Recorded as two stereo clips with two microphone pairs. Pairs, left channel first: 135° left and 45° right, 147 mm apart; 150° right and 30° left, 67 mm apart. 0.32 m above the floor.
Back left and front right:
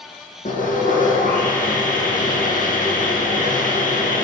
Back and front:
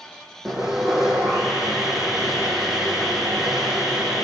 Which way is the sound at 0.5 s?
110° left.